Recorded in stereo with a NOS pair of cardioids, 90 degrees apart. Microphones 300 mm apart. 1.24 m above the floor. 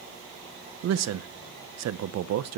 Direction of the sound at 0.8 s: 60° right.